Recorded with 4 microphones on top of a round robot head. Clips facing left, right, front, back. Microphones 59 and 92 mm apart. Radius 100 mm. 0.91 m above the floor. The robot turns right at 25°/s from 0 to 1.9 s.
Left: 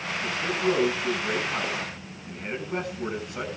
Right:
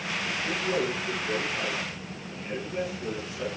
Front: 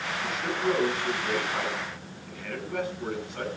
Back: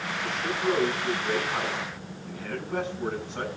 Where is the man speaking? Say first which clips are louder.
Left 6 dB, even; 75° left, 7.5 m; by 3.5 s 120° left, 7.5 m.